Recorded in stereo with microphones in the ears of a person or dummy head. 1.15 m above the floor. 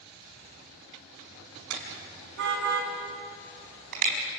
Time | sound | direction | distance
1.7 | a car horn | 70° right (ahead or behind) | 5.5 m